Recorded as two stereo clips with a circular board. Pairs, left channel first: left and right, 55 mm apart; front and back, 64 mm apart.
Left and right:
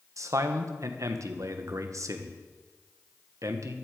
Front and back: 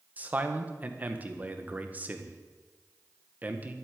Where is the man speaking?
115° right, 1.6 m.